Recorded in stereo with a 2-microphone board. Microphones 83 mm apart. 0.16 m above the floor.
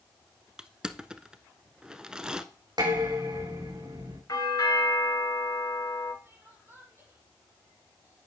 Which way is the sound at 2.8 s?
55° right (ahead or behind).